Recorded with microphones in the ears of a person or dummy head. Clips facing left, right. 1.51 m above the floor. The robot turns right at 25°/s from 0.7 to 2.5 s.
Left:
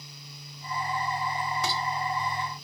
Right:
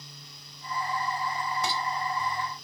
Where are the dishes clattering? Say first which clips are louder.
Even; 60° left (ahead or behind), 1.9 m; by 1.8 s 65° left (ahead or behind), 1.9 m.